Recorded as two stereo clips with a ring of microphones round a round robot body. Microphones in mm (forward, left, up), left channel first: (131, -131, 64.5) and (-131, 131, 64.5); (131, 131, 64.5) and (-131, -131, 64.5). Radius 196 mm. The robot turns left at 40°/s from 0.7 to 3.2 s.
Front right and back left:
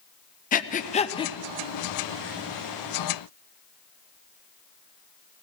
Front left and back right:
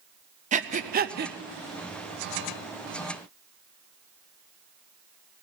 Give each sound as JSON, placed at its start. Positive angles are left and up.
{"t": 0.5, "sound": "breathing", "azimuth_deg": -85, "distance_m": 0.6}